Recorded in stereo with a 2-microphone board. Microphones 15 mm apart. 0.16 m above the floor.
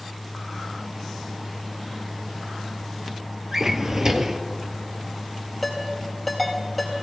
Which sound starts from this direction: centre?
A ringtone, at 5.6 s.